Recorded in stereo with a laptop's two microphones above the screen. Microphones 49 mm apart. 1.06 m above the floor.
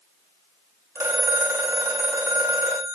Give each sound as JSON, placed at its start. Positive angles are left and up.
{"t": 0.9, "sound": "a phone ringing", "side_deg": -75, "distance_m": 1.8}